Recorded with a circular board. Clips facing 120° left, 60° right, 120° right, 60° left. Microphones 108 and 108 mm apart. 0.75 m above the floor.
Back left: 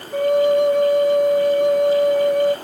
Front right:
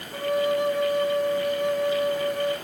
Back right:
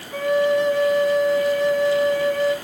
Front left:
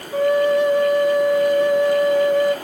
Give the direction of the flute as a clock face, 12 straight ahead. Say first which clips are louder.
Back left 8 dB, front left 2 dB; 8 o'clock.